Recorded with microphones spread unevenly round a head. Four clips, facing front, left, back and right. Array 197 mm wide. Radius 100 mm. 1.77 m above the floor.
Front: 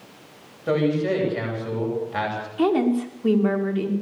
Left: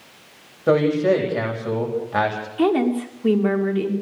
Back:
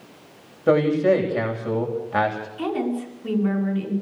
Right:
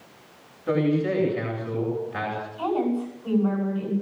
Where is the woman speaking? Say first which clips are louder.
Left 6 dB, front 6 dB; 65° left, 5.5 m.